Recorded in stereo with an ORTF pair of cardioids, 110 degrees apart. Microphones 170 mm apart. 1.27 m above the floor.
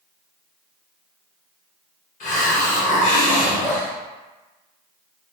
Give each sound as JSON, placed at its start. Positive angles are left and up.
{"t": 2.2, "sound": "a hiss", "azimuth_deg": 50, "distance_m": 1.1}
{"t": 3.6, "sound": "dripping", "azimuth_deg": 0, "distance_m": 0.7}